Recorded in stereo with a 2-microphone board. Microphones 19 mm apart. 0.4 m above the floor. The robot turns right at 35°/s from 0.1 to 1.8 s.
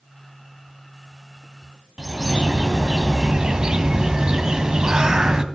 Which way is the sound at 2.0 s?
35° right (ahead or behind).